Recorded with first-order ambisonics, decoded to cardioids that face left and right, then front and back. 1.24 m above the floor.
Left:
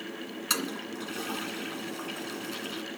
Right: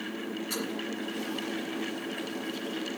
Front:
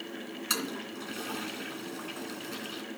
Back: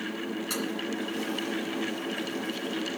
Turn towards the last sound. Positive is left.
turn(degrees=60)